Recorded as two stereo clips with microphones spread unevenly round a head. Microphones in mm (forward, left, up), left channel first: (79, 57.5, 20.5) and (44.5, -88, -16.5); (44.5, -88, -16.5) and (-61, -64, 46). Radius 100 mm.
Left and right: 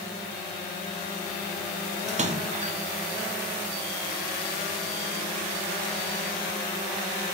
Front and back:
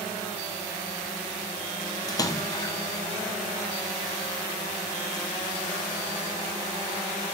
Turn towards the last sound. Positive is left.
turn(degrees=-65)